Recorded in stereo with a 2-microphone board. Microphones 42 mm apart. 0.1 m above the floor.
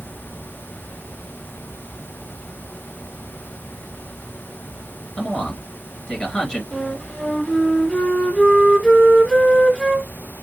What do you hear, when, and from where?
5.2 s a man speaking: 25° left (ahead or behind), 1.7 m
6.7 s a flute: 20° left (ahead or behind), 1.2 m